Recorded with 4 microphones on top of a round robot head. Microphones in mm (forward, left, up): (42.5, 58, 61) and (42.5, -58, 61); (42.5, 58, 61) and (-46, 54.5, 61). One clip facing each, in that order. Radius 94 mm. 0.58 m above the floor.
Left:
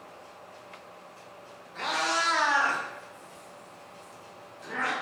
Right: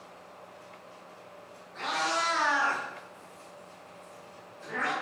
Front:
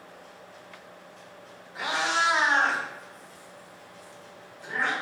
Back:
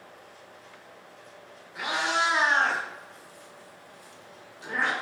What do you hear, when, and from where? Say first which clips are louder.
1.8 s a cat meowing: left 1 dB, even; 60° left, 1.1 m; by 4.9 s 175° left, 0.8 m